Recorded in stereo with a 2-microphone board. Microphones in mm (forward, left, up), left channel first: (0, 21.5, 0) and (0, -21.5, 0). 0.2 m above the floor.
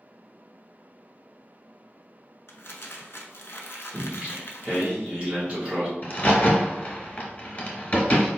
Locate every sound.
2.5 s crumpling: 75° left (ahead or behind), 0.5 m
3.9 s singing: 25° right (ahead or behind), 1.9 m
6.0 s a crack: 40° left (ahead or behind), 1.0 m